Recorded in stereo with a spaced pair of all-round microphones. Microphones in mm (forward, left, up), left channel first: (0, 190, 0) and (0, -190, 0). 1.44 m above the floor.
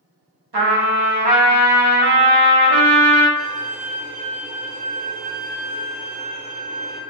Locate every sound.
0.5 s a trumpet: 90° right, 0.7 m
3.4 s a violin: 5° right (ahead or behind), 0.8 m